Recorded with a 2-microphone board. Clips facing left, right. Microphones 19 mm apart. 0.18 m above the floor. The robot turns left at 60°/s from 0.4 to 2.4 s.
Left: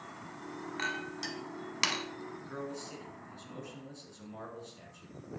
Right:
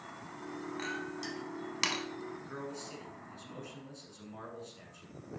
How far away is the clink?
About 0.6 m.